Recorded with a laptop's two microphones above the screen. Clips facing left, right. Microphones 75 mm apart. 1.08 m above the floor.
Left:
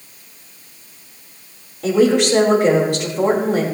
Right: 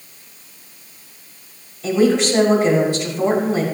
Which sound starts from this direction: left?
A woman speaking, at 1.8 s.